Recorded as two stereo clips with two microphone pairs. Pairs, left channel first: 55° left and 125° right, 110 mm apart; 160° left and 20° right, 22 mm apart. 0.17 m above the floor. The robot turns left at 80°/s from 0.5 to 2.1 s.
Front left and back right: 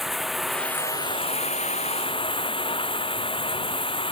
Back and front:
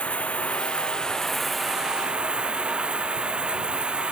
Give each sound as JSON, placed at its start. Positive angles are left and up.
{"t": 0.0, "sound": "running water", "azimuth_deg": 145}